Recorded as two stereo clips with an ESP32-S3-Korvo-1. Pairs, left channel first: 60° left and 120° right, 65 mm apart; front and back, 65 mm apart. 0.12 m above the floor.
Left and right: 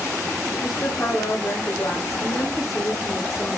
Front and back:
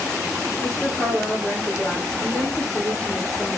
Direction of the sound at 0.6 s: 75° left.